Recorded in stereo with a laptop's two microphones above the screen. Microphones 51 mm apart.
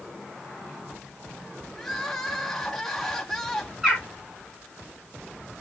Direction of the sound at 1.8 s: 5° left (ahead or behind).